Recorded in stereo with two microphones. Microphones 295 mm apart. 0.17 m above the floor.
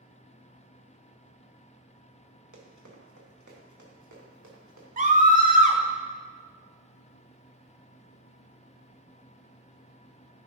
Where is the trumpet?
No trumpet in this recording.